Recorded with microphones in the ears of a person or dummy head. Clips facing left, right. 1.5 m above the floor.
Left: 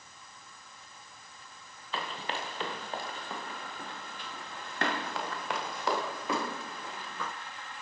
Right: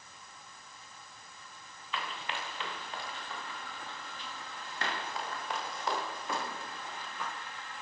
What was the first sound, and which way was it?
Running footsteps, 30° left (ahead or behind).